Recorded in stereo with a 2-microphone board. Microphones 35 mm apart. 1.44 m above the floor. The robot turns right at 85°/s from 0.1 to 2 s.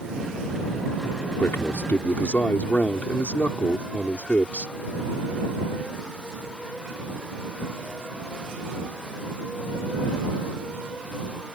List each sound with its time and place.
1.4 s a man speaking: 80° left; by 4.7 s 130° left